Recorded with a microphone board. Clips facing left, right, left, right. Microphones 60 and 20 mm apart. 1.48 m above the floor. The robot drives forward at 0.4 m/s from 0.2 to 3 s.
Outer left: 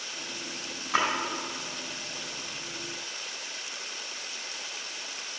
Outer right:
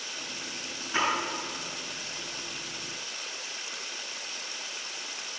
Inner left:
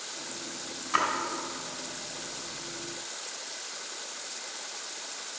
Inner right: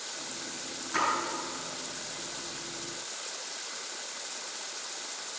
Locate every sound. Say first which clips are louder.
0.9 s a splash: outer left 2 dB, inner left 3 dB; 70° left (ahead or behind), 4 m